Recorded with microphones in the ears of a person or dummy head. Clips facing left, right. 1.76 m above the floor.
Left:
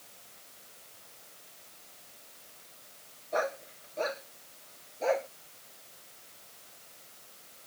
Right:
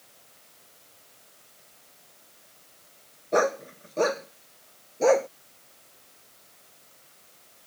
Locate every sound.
3.3 s a dog barking: 75° right (ahead or behind); by 5.3 s 70° right (ahead or behind)